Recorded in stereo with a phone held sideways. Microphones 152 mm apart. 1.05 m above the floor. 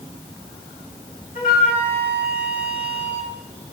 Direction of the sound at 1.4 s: 75° left (ahead or behind).